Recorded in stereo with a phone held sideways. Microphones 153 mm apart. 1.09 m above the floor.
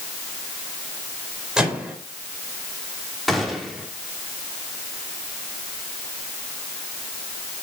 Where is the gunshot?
Centre (ahead or behind), 3 m.